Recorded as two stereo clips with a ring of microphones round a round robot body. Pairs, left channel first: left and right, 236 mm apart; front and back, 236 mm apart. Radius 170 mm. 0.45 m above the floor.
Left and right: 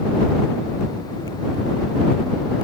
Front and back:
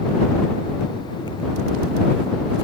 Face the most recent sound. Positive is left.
No sound to turn to.